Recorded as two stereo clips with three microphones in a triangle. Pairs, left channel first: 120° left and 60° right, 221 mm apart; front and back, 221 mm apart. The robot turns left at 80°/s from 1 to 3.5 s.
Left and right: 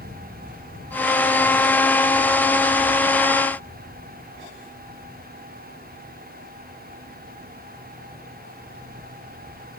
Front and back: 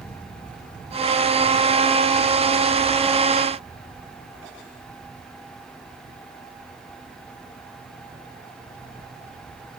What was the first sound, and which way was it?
Only background noise.